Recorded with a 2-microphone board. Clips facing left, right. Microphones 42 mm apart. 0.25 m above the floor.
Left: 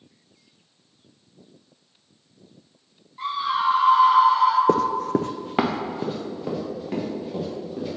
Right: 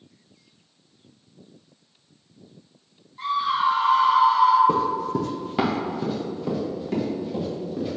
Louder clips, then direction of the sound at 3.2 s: Right 1 dB; 10° left (ahead or behind).